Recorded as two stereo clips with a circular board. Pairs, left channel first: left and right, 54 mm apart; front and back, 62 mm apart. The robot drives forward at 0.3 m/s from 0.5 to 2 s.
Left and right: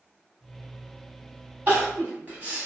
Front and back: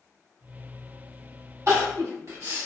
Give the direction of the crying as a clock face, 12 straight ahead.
5 o'clock.